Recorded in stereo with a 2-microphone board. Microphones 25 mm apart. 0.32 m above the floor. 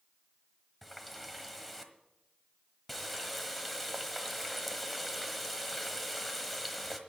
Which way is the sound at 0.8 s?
5° left (ahead or behind).